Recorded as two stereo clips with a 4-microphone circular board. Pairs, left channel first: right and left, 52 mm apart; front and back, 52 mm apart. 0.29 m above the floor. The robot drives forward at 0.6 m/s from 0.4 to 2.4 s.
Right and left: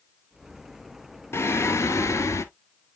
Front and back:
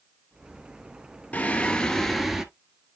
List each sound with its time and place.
1.3 s singing: 60° right, 1.0 m; by 2.5 s 95° right, 0.9 m